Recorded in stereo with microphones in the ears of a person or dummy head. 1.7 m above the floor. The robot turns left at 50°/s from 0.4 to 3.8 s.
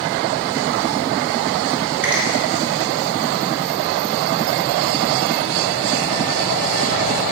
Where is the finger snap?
10° right (ahead or behind), 2 m; by 2.2 s centre (ahead or behind), 2 m.